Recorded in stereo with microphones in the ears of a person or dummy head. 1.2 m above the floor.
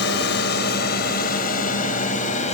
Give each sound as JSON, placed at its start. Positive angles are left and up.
{"t": 0.0, "sound": "a drone", "side_deg": 60}